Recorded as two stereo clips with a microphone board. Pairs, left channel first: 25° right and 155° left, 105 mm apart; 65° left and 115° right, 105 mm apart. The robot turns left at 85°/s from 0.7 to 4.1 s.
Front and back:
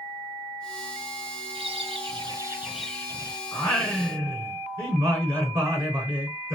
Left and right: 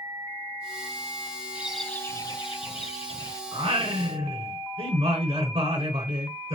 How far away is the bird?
About 1.2 m.